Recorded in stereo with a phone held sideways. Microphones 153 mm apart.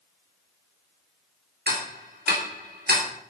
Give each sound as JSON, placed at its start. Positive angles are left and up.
{"t": 1.7, "sound": "ticking", "side_deg": -85, "distance_m": 3.0}